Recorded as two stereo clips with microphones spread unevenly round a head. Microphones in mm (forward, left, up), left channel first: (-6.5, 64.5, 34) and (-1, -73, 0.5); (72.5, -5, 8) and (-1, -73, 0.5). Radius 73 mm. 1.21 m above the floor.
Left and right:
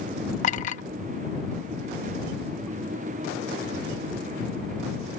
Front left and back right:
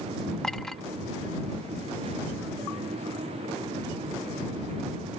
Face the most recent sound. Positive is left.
turn(degrees=130)